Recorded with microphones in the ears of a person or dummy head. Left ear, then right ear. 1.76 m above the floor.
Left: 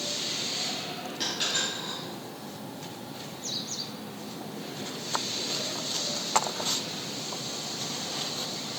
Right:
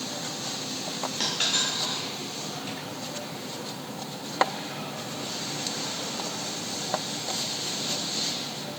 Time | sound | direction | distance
1.2 | a dropped coin | 30° right (ahead or behind) | 2.5 m